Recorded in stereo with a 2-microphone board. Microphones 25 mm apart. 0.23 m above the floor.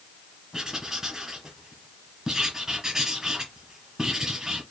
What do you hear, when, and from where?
0.5 s writing: 30° right (ahead or behind), 2.5 m